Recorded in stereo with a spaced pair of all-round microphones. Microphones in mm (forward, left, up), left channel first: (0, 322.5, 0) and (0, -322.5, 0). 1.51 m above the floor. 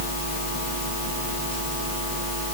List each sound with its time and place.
Only background noise.